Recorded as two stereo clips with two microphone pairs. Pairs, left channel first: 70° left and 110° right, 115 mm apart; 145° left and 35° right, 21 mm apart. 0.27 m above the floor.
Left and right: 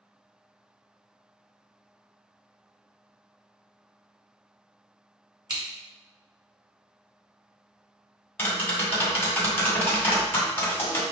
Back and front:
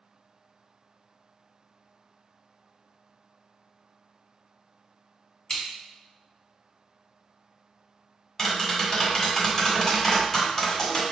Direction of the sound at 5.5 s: 160° right.